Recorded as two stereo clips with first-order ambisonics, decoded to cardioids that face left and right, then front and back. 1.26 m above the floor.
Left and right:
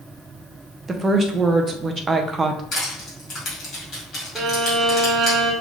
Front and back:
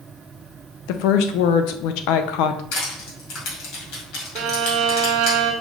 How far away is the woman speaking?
About 0.5 m.